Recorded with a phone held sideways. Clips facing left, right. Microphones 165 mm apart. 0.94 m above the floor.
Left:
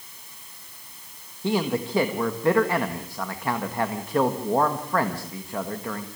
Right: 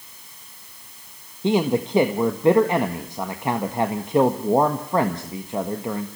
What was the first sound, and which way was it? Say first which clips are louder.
A man speaking: right 5 dB; 20° right (ahead or behind).